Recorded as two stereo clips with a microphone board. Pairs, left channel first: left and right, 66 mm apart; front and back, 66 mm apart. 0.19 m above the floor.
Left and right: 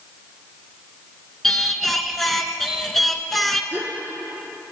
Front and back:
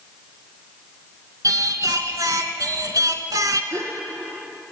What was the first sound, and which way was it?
Singing, 175° left.